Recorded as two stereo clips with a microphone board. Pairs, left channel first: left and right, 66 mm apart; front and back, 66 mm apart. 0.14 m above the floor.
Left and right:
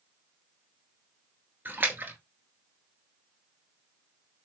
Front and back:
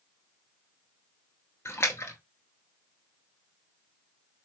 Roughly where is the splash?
Ahead right.